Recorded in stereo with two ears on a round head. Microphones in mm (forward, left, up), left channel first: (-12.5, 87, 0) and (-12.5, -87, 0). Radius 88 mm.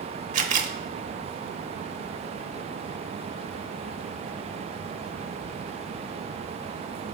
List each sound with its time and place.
0.3 s a camera shutter: 40° right (ahead or behind), 0.8 m